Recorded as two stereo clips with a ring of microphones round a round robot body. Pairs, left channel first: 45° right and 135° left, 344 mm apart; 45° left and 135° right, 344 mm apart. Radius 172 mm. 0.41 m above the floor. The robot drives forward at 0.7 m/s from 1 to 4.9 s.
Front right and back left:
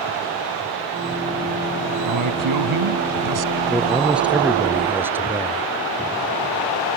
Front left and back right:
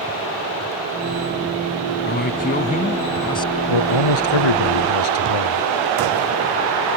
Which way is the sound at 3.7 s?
45° left.